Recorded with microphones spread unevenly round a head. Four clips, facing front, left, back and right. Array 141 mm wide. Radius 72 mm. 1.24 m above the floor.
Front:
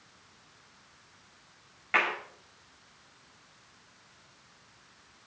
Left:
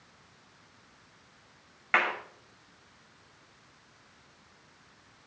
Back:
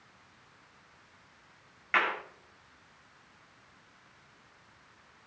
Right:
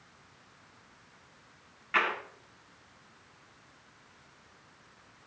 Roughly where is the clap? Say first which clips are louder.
Left 2 dB, even; left.